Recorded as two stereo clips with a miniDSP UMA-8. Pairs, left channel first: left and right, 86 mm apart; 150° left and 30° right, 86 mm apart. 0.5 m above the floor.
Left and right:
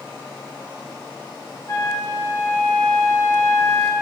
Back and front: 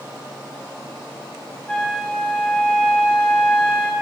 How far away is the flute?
About 0.6 m.